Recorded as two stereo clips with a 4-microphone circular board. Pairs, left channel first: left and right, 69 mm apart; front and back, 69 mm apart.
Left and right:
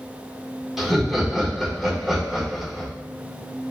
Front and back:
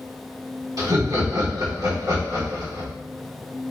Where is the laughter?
175° right, 1.2 m.